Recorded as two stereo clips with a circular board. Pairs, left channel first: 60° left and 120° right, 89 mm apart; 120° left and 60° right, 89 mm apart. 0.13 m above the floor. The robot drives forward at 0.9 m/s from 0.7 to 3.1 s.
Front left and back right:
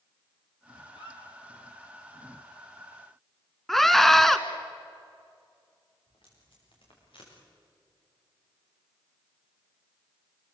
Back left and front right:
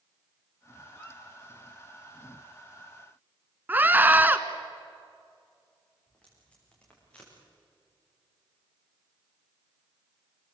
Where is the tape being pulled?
45° left, 9 m.